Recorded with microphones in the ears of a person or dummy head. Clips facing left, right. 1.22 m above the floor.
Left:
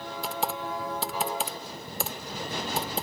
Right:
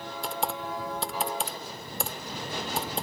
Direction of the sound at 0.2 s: 5° left (ahead or behind).